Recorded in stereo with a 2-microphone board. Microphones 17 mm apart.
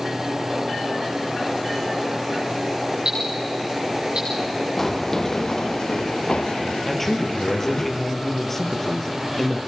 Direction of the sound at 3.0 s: 70° right (ahead or behind).